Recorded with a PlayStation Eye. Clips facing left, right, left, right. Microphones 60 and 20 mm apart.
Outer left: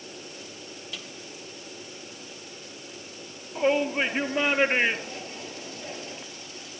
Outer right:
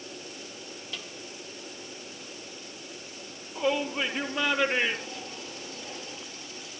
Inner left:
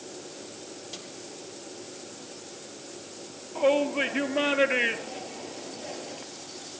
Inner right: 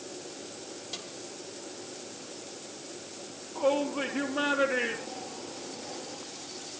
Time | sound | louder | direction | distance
0.9 | a snare drum | outer right 1 dB, inner right 3 dB | centre (ahead or behind) | 2.5 m
3.5 | a shout | outer left 4 dB, inner left 4 dB | 35° left (ahead or behind) | 3 m